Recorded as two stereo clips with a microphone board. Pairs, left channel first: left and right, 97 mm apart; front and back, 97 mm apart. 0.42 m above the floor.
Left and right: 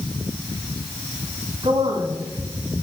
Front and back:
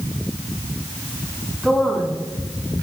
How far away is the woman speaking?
About 4.5 m.